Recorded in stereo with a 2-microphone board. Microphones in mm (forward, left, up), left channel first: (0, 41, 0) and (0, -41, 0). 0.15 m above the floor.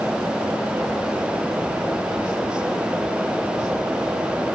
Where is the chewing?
I don't hear chewing.